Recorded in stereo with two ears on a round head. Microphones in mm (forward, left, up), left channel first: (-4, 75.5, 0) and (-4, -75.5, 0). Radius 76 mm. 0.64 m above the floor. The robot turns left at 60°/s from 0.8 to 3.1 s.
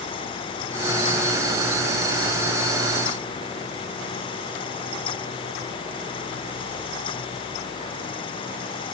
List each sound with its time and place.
Only background noise.